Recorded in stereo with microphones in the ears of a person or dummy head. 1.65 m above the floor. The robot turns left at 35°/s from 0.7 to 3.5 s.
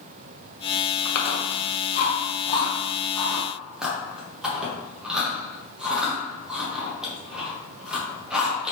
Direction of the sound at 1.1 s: 75° left (ahead or behind).